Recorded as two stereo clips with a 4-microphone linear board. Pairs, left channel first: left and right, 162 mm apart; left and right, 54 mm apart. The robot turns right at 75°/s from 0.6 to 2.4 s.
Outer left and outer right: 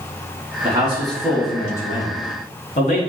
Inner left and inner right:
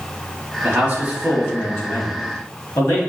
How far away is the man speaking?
About 1.8 m.